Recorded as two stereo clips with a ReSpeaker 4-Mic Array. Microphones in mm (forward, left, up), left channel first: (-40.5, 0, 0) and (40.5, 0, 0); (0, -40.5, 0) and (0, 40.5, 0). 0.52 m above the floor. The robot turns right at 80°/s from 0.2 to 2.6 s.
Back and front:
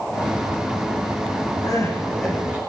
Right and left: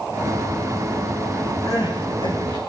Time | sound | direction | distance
1.6 | crying | 140° right | 8 m